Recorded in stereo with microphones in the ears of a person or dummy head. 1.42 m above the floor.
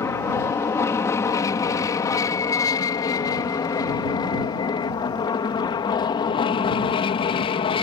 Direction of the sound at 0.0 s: 15° left (ahead or behind).